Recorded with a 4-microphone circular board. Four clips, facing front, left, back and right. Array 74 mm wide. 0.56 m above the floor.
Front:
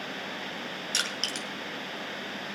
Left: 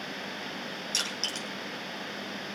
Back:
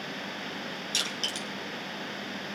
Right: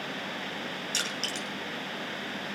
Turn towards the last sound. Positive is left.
turn(degrees=-10)